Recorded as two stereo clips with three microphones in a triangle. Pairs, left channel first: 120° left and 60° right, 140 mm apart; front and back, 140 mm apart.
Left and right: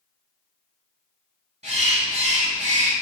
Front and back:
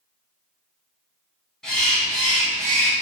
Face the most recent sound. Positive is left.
turn(degrees=-85)